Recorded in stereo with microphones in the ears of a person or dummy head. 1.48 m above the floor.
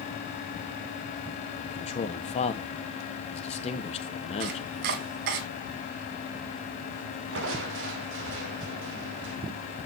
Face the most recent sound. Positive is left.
turn(degrees=-70)  # may be behind; listen again after turning